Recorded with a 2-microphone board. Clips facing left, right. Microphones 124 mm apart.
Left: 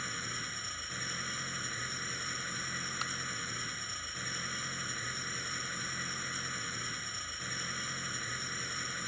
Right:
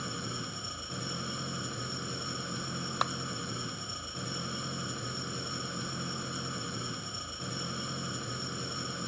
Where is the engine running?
25° right (ahead or behind).